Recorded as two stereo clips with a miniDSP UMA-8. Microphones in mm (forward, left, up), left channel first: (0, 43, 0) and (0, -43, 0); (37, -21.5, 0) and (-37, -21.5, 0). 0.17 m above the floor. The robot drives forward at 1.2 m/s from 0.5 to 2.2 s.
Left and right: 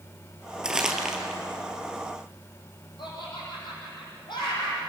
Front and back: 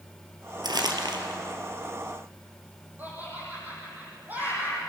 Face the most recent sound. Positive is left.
turn(degrees=115)